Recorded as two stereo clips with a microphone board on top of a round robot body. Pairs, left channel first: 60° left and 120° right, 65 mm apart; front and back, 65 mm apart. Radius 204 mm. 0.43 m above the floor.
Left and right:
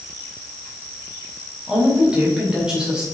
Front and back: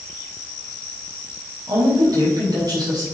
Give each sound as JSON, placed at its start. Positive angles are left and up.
{"t": 1.7, "sound": "a woman speaking", "azimuth_deg": 160, "distance_m": 5.5}